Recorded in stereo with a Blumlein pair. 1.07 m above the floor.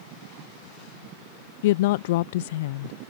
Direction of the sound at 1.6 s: 55° left.